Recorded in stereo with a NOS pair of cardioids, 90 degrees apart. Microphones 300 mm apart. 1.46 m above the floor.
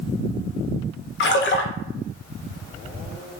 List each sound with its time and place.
1.2 s a splash: 40° left, 0.6 m